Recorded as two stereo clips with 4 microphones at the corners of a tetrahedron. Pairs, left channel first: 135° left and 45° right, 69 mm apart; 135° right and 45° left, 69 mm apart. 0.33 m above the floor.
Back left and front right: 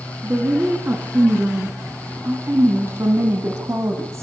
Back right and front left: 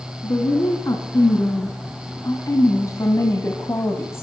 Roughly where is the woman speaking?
Right.